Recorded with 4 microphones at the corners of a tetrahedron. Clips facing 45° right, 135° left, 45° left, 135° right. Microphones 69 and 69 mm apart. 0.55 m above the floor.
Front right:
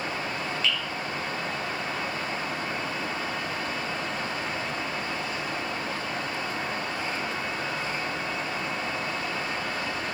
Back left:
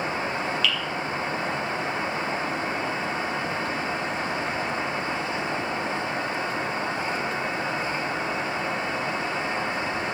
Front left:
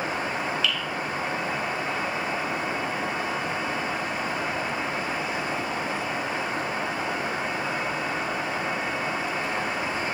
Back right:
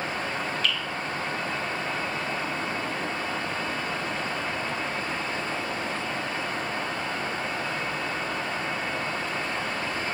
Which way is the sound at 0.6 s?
100° right.